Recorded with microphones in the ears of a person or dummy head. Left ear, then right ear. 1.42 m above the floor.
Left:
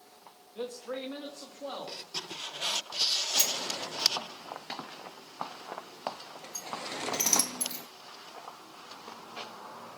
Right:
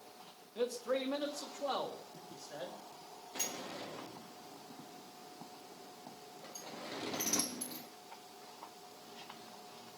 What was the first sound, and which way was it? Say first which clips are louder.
A man speaking: right 2 dB; 5° right (ahead or behind).